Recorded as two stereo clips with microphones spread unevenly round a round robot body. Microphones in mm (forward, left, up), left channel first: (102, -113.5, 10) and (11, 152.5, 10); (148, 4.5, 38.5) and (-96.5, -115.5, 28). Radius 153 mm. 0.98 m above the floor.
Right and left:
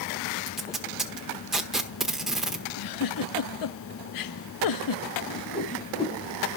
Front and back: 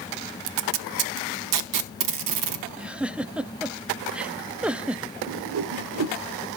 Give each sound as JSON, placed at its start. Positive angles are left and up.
{"t": 0.5, "sound": "tape being pulled", "azimuth_deg": -165, "distance_m": 0.9}
{"t": 2.8, "sound": "a giggle", "azimuth_deg": -65, "distance_m": 0.6}
{"t": 5.3, "sound": "a whoosh", "azimuth_deg": -140, "distance_m": 1.0}